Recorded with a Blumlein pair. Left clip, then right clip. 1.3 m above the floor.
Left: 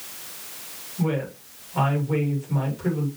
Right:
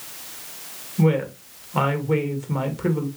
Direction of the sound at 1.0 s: 25° right.